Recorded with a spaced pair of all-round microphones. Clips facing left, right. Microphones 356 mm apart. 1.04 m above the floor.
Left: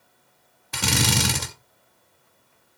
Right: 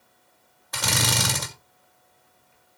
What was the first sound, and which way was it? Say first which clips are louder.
A drill: left 4 dB; 40° left (ahead or behind).